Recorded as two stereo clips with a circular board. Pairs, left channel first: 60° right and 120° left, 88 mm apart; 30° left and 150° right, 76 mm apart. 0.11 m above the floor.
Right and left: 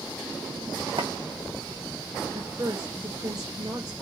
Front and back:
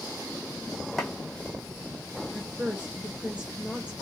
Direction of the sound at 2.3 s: 140° left.